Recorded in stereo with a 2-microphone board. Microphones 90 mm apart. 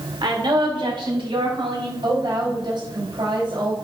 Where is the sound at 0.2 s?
60° right (ahead or behind), 3 m; by 1.9 s 75° right (ahead or behind), 5 m.